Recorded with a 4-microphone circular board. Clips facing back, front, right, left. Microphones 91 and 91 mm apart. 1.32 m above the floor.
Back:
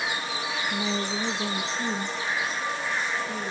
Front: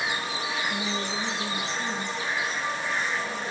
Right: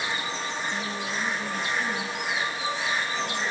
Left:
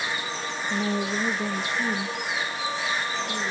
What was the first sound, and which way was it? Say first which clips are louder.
A woman speaking: back 1 dB, left 5 dB; 100° left.